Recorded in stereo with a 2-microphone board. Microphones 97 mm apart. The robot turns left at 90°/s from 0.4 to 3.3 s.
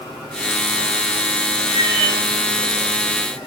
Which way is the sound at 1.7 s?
95° left.